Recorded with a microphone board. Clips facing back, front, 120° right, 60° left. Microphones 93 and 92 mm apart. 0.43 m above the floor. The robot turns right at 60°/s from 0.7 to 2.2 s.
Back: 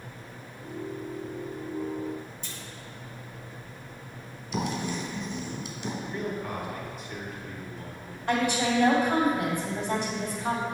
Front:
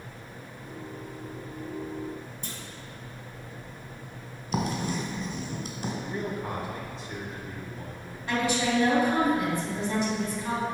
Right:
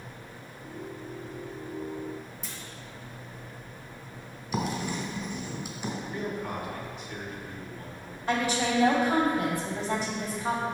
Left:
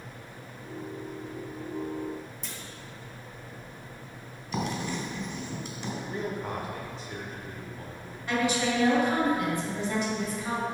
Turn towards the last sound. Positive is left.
turn(degrees=-165)